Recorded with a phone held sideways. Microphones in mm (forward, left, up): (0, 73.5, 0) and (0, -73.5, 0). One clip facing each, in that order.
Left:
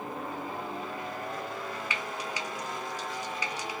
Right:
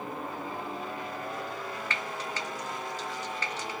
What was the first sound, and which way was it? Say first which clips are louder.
Frying: even; 10° left (ahead or behind).